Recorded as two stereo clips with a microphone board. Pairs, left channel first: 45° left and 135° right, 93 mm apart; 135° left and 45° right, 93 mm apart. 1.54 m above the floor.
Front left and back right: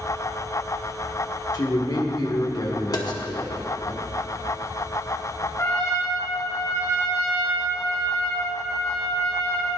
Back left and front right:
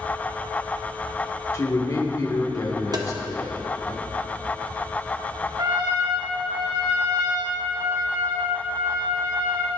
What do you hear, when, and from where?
1.5 s a man speaking: 85° left, 1.7 m
2.9 s tapping: straight ahead, 1.1 m
5.6 s a trumpet: 10° right, 2.5 m